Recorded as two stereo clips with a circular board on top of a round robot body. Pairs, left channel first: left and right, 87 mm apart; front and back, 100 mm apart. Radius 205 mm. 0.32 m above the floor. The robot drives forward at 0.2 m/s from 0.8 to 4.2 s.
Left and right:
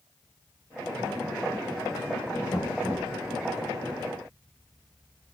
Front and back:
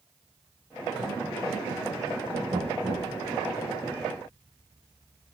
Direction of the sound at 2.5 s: 145° left.